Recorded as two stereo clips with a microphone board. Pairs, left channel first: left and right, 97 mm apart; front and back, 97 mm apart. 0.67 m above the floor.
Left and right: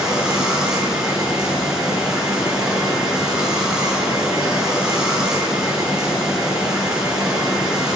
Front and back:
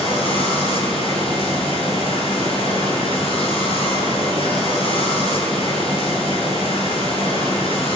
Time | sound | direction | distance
0.0 | running water | 5° right | 7 m